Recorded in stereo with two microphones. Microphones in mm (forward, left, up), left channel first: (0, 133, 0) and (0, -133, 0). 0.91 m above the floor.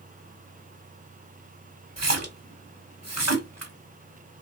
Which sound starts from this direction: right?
A splash, at 2.0 s.